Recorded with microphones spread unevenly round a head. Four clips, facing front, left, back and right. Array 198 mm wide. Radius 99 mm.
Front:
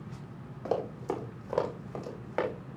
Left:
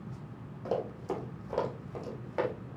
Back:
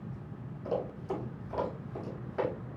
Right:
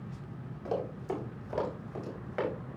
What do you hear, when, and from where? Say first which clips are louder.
0.7 s running footsteps: left 1 dB, front 2 dB; 15° left, 4 m